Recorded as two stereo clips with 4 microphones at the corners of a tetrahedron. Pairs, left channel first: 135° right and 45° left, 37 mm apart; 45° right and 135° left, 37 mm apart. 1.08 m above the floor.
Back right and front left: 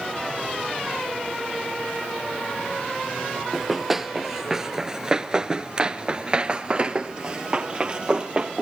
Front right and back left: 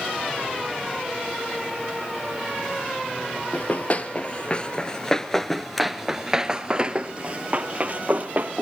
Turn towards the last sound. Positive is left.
turn(degrees=100)